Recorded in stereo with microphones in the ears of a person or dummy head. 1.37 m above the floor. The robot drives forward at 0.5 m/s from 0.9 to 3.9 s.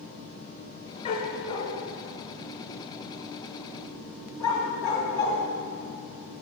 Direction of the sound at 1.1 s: 30° left (ahead or behind).